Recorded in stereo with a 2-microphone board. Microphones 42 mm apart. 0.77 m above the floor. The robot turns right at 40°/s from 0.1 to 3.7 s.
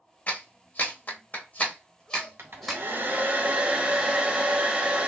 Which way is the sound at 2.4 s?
80° right.